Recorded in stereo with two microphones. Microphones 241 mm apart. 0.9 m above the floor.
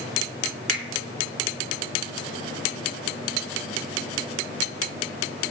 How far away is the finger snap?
About 3 m.